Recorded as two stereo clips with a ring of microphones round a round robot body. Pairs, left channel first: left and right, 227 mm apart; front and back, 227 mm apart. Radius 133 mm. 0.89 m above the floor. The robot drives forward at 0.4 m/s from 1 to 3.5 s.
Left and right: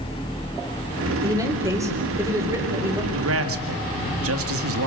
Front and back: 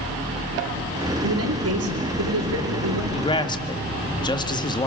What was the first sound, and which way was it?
A man speaking, 165° right.